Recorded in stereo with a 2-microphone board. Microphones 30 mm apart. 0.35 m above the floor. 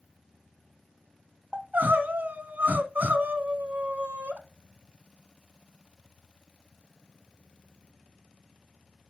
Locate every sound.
1.5 s crying: 75° right (ahead or behind), 0.7 m